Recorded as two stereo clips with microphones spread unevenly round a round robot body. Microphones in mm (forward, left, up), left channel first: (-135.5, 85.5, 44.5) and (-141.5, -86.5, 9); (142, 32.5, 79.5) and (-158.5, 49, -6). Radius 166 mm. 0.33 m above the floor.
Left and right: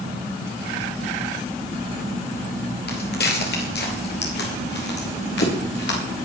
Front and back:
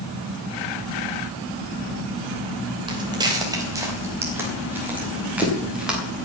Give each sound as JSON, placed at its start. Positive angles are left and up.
{"t": 2.9, "sound": "footsteps", "azimuth_deg": 100, "distance_m": 5.0}